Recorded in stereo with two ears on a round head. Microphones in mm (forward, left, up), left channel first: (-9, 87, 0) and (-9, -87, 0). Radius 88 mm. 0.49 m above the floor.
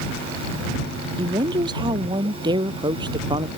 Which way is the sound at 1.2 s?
25° right (ahead or behind).